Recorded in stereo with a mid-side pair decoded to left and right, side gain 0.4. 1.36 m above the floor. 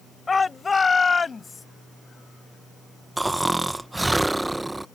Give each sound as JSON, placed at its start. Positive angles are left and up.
{"t": 0.3, "sound": "a shout", "azimuth_deg": 30}
{"t": 3.2, "sound": "snoring", "azimuth_deg": -15}